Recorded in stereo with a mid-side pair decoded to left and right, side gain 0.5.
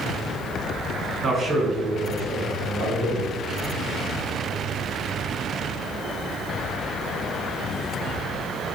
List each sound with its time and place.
1.2 s a man speaking: 35° right, 1.9 m; by 3.3 s 75° right, 1.6 m